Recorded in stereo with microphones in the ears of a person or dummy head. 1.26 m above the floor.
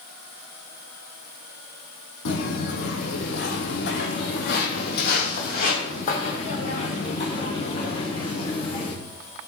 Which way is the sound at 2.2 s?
65° left (ahead or behind).